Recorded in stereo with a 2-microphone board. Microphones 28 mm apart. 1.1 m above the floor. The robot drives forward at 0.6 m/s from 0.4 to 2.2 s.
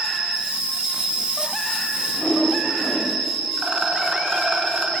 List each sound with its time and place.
0.0 s an insect: 40° right (ahead or behind), 2.5 m; by 5.0 s 25° right (ahead or behind), 3.5 m
2.1 s a whoosh: 30° left (ahead or behind), 1.3 m; by 3.2 s 25° left (ahead or behind), 1.4 m
3.6 s a rattle: 45° right (ahead or behind), 1.1 m